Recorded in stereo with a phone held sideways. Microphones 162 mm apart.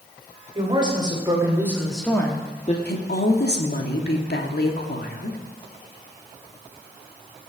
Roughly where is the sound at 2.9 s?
Left.